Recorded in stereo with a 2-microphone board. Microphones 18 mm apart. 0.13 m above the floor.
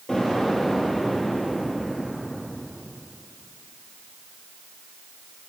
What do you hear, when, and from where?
0.1 s an explosion: 30° left (ahead or behind), 4 m